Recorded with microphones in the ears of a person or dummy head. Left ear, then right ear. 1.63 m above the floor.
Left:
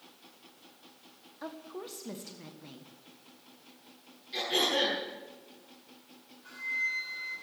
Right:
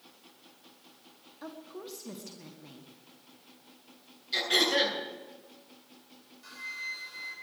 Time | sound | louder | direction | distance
1.4 | a woman speaking | left 2 dB | 15° left (ahead or behind) | 1.5 m
4.3 | throat clearing | right 3 dB | 40° right (ahead or behind) | 8.5 m
6.4 | a flute | left 6 dB | 55° right (ahead or behind) | 6.5 m